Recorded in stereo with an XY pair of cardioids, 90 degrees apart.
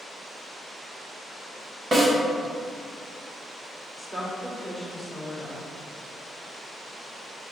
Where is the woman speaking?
Straight ahead, 1.4 m.